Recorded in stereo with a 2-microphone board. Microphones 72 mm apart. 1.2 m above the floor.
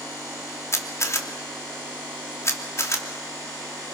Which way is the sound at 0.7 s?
40° left (ahead or behind).